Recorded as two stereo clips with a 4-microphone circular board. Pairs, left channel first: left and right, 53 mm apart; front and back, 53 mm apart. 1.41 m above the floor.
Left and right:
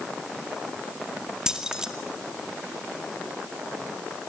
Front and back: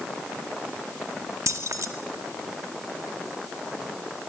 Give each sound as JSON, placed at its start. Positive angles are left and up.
{"t": 1.5, "sound": "keys jangling", "azimuth_deg": -170, "distance_m": 1.9}